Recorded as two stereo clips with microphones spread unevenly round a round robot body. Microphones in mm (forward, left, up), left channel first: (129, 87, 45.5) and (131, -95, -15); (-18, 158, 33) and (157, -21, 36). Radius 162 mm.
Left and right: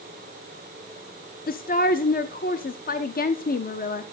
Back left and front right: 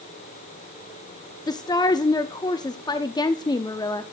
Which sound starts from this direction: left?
A woman speaking, at 1.5 s.